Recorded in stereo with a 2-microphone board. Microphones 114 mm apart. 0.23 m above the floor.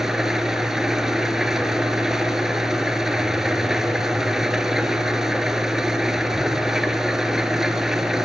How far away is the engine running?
About 1.1 m.